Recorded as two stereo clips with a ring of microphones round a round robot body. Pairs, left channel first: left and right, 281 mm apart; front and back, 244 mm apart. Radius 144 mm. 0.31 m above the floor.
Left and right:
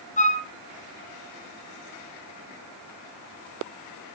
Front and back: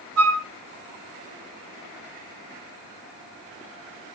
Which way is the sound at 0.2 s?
155° left.